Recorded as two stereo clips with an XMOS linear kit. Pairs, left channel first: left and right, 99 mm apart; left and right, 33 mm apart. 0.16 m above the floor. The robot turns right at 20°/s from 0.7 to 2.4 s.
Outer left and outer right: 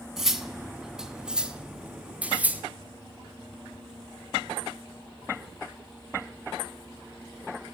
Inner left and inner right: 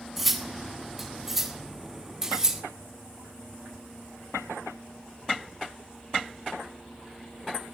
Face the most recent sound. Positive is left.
turn(degrees=-15)  # may be behind; listen again after turning